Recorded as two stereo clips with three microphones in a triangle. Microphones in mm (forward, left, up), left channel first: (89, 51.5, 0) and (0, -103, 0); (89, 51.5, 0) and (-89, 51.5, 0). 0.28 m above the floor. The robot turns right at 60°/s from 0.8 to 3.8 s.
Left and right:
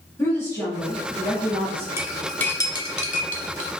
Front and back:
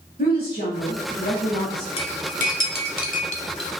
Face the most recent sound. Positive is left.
turn(degrees=65)